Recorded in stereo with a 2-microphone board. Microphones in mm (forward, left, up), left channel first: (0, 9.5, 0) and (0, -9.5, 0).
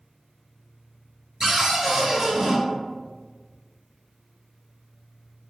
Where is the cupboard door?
40° right (ahead or behind), 1.3 m.